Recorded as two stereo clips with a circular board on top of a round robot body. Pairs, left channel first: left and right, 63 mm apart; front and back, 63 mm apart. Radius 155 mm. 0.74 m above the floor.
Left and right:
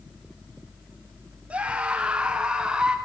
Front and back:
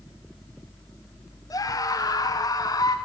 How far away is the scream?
About 3.5 m.